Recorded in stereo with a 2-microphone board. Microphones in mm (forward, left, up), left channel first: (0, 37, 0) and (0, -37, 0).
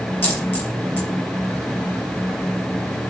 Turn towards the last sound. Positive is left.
turn(degrees=25)  # may be behind; listen again after turning